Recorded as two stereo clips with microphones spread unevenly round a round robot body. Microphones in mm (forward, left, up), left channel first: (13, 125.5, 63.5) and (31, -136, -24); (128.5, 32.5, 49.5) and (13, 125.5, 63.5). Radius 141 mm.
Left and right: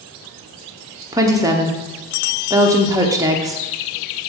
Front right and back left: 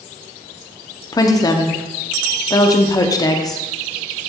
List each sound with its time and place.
1.1 s a woman speaking: 65° right, 1.1 m